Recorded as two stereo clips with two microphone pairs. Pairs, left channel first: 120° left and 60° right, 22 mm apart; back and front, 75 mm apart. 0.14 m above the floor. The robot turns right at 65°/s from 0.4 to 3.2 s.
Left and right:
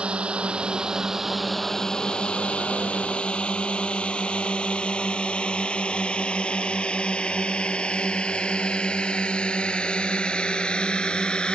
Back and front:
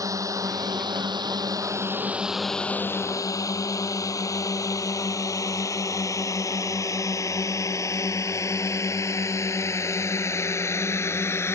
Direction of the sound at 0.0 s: 40° right.